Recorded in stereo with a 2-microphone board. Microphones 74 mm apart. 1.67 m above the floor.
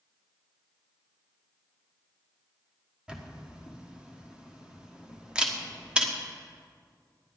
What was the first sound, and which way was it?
A camera shutter, 15° right (ahead or behind).